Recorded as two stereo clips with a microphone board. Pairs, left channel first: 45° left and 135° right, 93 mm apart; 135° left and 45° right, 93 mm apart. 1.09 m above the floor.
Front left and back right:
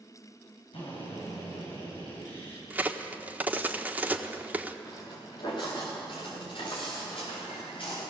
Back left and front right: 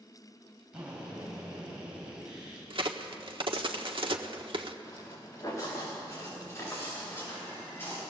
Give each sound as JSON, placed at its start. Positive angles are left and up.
{"t": 0.7, "sound": "a drill", "azimuth_deg": 35, "distance_m": 8.0}
{"t": 2.7, "sound": "a crack", "azimuth_deg": -65, "distance_m": 1.4}
{"t": 4.8, "sound": "footsteps", "azimuth_deg": 80, "distance_m": 6.0}